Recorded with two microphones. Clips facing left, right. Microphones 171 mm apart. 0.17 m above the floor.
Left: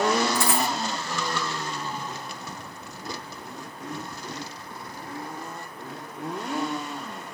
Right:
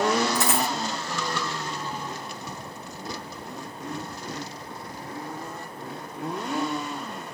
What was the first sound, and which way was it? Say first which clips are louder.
A dropped coin: even; 20° right (ahead or behind).